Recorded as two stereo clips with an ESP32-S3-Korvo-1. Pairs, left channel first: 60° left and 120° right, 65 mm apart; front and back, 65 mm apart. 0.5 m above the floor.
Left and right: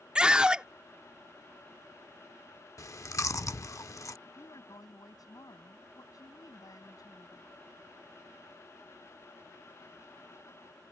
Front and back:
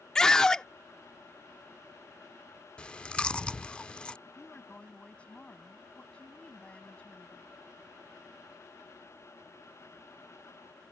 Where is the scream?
65° right.